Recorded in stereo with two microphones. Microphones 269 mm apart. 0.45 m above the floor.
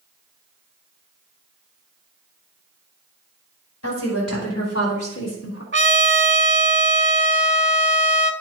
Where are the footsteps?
No footsteps in this recording.